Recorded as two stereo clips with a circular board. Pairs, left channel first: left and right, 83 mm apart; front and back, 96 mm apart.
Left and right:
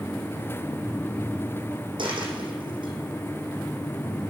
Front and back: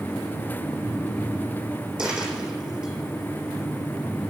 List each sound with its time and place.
2.0 s a dropped coin: 100° right, 4 m